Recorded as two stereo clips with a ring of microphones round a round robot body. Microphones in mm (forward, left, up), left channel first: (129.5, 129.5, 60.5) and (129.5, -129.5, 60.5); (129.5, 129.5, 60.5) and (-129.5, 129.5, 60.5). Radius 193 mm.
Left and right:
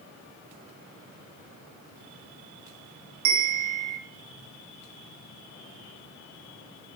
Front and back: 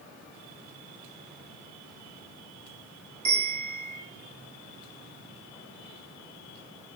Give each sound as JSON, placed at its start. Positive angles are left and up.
{"t": 3.2, "sound": "a bell", "azimuth_deg": -110, "distance_m": 0.8}